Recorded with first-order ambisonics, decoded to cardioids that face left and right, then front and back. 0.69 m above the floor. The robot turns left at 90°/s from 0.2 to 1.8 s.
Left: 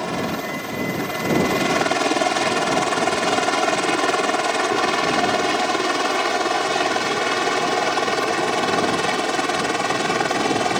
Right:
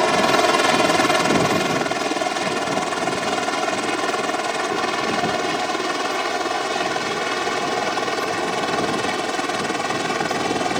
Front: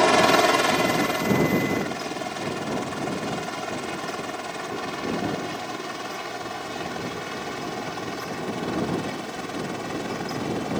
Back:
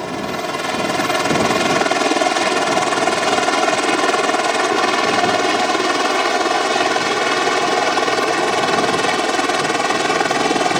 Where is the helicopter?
45° right; by 10.8 s 175° left.